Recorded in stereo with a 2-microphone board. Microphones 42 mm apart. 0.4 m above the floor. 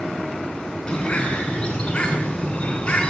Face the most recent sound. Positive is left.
turn(degrees=25)  # may be behind; listen again after turning